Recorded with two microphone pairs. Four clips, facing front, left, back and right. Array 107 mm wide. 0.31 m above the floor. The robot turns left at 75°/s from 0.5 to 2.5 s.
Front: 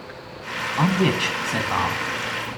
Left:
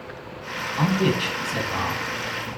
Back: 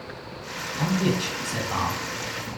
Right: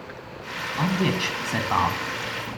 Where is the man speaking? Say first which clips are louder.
Left 2 dB, front 4 dB; 10° left, 3 m; by 2.0 s 85° right, 3 m.